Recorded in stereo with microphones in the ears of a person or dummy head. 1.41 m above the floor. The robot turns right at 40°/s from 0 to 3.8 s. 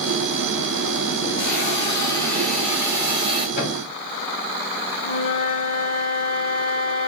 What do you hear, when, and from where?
1.4 s a hiss: 130° left, 0.9 m; by 3.5 s 145° right, 0.9 m
3.6 s a thud: 50° left (ahead or behind), 1.5 m; by 3.9 s 45° left (ahead or behind), 1.5 m
5.0 s a flute: 35° left (ahead or behind), 1.0 m